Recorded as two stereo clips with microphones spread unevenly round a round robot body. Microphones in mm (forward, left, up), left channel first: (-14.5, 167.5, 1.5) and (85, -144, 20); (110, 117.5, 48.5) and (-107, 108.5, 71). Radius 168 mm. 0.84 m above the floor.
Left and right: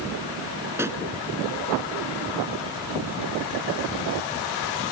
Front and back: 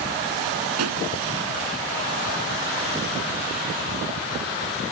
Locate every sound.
0.8 s a pop: 155° right